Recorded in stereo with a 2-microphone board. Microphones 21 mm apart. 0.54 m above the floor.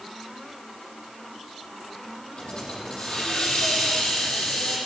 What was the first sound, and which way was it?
A hiss, 50° left (ahead or behind).